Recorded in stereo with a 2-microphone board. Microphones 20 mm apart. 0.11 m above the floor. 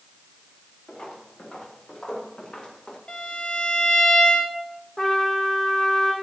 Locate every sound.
0.9 s footsteps: 60° left (ahead or behind), 8 m; by 3.0 s 45° left (ahead or behind), 6.5 m
3.1 s a violin: 45° left (ahead or behind), 3 m
5.0 s a trumpet: 20° left (ahead or behind), 4 m